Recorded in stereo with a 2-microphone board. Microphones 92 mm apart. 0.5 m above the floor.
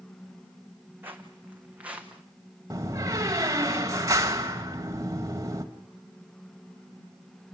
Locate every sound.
1.0 s footsteps: 20° right (ahead or behind), 1.8 m; by 2.2 s 10° right (ahead or behind), 2 m
2.7 s a door slam: 35° right (ahead or behind), 1.7 m